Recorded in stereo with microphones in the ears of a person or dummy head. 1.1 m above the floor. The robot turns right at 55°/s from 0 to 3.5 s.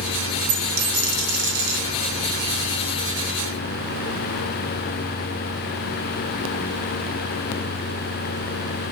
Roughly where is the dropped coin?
Behind right.